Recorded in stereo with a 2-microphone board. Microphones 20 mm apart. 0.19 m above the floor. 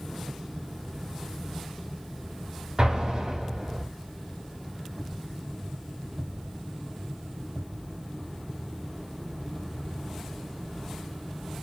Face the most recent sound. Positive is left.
turn(degrees=-45)  # may be behind; listen again after turning